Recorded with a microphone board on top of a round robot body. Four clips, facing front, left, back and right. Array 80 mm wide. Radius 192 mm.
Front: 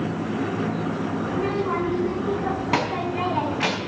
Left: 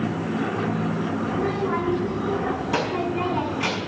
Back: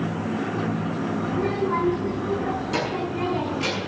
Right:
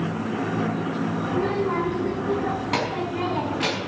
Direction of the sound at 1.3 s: 20° right.